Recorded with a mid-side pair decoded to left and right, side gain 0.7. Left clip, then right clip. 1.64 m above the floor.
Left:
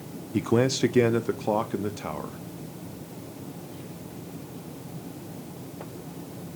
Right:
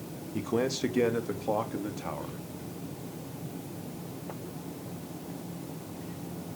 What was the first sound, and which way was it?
A man speaking, 65° left.